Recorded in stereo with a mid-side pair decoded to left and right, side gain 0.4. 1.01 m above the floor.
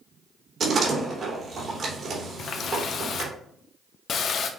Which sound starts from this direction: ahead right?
A door slam, at 0.6 s.